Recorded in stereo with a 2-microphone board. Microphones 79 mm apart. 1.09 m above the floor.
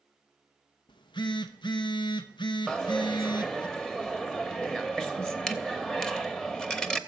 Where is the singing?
I don't hear singing.